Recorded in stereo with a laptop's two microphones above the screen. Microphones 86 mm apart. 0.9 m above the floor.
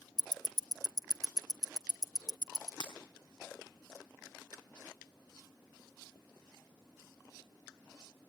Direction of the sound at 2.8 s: 65° left (ahead or behind).